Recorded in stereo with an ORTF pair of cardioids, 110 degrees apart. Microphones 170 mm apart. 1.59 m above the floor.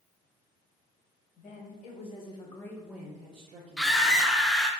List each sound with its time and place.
1.4 s a woman speaking: 55° left, 1.1 m; by 4.4 s 70° right, 0.9 m
3.8 s a scream: straight ahead, 0.6 m